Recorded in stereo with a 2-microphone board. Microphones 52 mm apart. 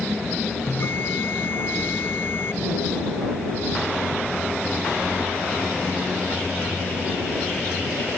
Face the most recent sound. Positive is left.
turn(degrees=50)  # may be behind; listen again after turning